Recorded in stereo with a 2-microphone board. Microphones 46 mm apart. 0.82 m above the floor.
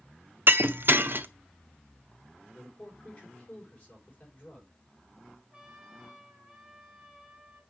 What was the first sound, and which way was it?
Breaking glass, 50° right (ahead or behind).